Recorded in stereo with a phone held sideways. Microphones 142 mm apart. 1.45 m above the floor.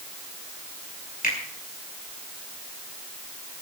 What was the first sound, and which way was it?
A finger snap, 80° left.